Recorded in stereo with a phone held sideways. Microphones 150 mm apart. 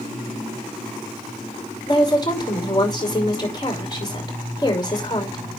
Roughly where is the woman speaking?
Left.